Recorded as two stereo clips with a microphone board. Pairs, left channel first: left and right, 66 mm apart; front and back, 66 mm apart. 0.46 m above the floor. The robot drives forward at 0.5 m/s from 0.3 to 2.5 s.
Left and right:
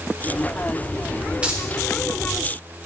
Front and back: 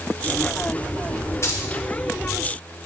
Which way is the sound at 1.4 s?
25° right.